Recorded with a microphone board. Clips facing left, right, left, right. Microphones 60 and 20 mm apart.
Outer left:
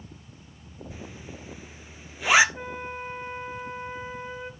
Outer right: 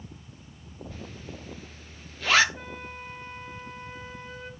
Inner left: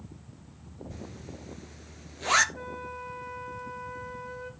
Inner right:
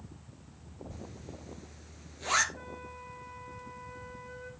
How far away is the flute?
About 1.1 m.